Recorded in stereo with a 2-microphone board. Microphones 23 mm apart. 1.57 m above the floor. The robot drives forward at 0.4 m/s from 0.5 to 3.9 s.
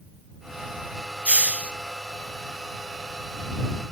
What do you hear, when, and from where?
1.2 s a hiss: 60° right (ahead or behind), 0.5 m; by 1.7 s 65° right (ahead or behind), 0.5 m